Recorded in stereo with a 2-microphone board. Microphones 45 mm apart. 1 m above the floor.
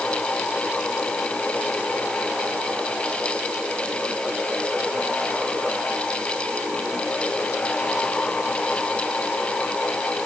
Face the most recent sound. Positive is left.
No sound to turn to.